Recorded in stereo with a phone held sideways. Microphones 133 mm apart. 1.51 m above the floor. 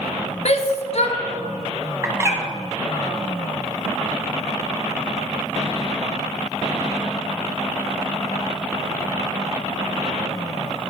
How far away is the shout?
About 0.8 m.